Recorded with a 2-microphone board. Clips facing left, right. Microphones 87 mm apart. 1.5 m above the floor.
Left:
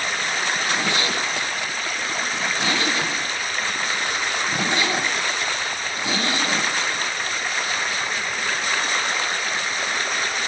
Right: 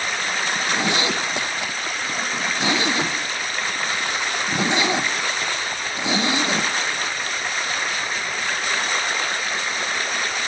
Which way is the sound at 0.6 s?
20° right (ahead or behind).